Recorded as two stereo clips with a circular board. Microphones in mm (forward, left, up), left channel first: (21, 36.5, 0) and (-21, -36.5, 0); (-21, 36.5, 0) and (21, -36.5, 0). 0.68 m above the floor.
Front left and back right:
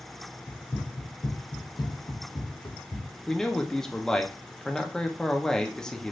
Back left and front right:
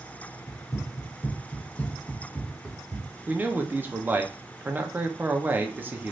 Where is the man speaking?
15° right, 0.5 m.